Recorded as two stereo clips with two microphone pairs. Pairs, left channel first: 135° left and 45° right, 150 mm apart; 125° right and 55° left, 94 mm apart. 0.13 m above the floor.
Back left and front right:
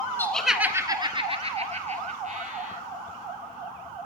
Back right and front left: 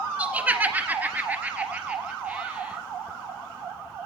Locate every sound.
0.2 s laughter: 85° left, 1.2 m; by 2.8 s 20° right, 3.5 m